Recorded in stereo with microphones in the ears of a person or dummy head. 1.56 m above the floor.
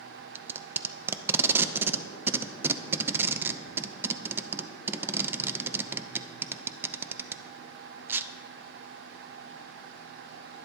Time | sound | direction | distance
0.3 | tape being pulled | 15° right (ahead or behind) | 0.6 m